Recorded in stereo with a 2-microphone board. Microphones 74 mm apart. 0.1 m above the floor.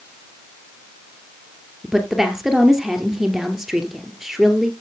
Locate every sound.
1.8 s a woman speaking: 5° right (ahead or behind), 2 m